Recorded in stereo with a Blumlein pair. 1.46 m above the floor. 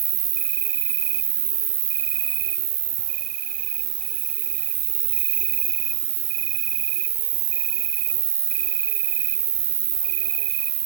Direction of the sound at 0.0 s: 55° right.